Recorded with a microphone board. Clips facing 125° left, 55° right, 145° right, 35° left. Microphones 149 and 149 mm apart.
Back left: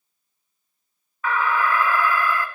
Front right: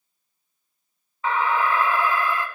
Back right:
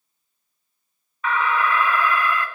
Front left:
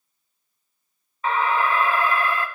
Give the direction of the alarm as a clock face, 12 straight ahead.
12 o'clock.